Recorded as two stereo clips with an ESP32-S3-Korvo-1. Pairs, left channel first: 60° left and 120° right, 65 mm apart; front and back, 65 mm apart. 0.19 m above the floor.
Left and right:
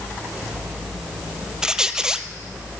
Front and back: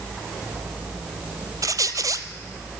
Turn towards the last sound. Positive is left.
turn(degrees=160)